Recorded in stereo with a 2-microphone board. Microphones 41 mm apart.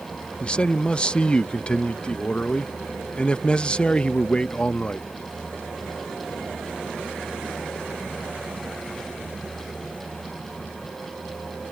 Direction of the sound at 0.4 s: 25° left (ahead or behind).